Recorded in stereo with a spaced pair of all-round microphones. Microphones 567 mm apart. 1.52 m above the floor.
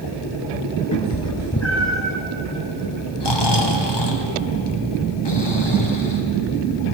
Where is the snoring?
45° left (ahead or behind), 1.0 m.